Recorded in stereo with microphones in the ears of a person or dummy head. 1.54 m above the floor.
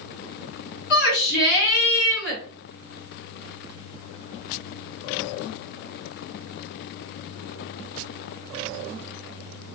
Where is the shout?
70° left (ahead or behind), 2.5 m.